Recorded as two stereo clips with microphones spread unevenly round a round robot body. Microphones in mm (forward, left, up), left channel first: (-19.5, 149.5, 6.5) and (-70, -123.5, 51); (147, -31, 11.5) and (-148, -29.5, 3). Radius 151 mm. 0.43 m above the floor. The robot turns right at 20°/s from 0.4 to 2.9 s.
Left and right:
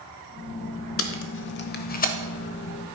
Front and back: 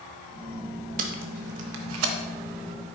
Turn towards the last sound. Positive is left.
turn(degrees=155)